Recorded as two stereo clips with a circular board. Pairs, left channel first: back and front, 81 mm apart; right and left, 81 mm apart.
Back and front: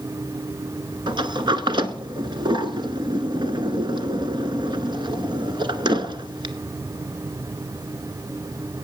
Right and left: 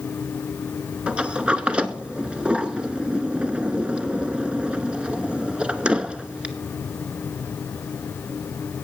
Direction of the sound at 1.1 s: 15° left.